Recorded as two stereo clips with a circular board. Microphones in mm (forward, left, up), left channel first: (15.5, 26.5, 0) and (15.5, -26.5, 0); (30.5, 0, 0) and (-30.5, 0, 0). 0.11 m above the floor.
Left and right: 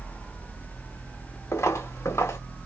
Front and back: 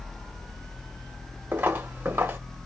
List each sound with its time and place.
1.5 s footsteps: 120° left, 1.0 m